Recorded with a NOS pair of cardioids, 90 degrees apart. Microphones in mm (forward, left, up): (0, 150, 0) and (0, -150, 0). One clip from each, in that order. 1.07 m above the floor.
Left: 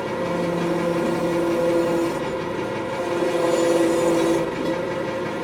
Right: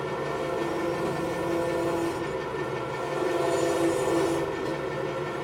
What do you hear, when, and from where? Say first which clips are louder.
0.0 s an engine running: left 6 dB; 65° left, 2.0 m